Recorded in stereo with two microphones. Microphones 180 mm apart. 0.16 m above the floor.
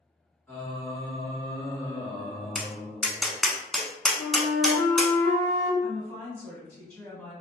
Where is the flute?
25° left (ahead or behind), 1.7 m.